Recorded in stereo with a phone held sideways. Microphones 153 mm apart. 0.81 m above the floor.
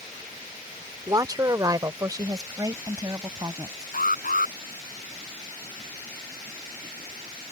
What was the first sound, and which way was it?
A woman speaking, 25° right (ahead or behind).